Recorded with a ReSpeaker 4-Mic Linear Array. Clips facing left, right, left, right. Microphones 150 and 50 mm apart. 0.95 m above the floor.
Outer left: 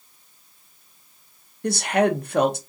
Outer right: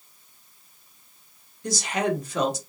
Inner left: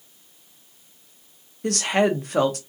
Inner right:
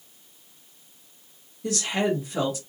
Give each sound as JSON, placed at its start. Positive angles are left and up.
{"t": 1.6, "sound": "a woman speaking", "side_deg": 60, "distance_m": 0.6}